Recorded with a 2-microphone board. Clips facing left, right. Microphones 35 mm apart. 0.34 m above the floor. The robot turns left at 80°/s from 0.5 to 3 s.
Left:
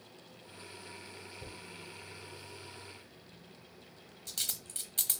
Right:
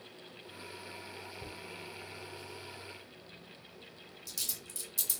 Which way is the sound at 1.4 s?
10° right (ahead or behind).